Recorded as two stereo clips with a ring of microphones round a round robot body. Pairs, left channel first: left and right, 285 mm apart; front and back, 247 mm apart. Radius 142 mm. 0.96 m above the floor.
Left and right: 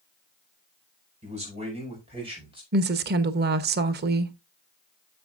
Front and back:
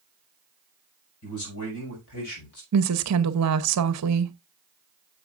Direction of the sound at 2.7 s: 145° right.